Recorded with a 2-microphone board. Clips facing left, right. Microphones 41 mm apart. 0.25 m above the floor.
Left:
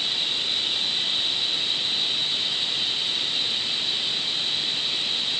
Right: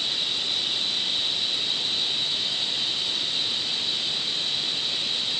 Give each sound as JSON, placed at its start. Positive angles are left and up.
{"t": 0.0, "sound": "running water", "side_deg": 15}